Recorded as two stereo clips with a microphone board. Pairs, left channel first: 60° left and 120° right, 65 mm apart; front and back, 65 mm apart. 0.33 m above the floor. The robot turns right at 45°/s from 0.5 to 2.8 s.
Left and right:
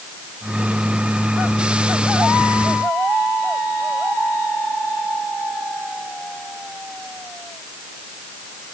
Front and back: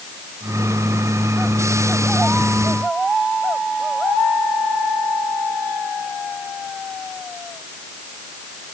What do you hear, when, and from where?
Only background noise.